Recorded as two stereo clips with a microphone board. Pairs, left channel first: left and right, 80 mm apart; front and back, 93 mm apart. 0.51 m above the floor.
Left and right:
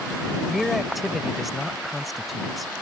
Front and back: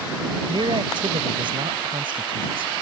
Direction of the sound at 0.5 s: Straight behind.